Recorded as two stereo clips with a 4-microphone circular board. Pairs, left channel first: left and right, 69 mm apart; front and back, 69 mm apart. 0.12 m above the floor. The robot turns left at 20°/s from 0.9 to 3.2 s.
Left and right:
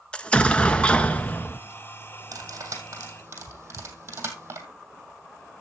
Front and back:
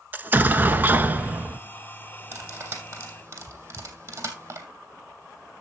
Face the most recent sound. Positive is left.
turn(degrees=-140)